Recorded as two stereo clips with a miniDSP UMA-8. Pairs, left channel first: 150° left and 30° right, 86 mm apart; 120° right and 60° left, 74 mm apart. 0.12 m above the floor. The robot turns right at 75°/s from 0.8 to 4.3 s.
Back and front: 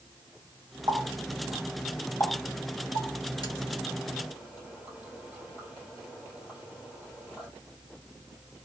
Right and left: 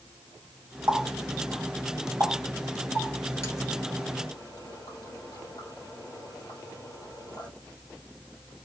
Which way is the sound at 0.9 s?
5° right.